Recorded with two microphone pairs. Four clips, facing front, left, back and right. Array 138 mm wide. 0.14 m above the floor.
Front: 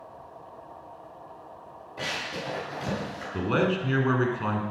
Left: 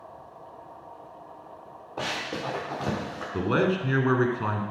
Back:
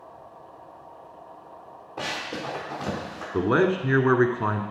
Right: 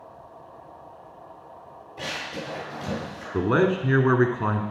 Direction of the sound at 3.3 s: 150° right.